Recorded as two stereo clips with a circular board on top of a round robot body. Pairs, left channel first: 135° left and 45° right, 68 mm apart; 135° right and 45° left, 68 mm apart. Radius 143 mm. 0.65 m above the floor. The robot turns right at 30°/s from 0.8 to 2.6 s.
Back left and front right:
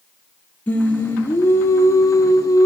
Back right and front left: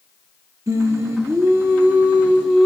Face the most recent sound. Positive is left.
turn(degrees=125)